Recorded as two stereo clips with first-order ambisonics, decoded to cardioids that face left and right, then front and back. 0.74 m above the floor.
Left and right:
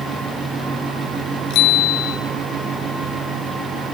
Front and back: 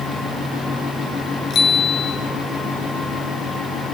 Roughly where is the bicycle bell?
Ahead left.